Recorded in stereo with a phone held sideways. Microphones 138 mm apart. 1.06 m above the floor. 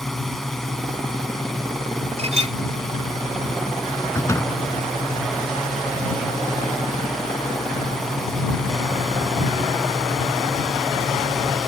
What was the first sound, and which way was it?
A drone, 5° left (ahead or behind).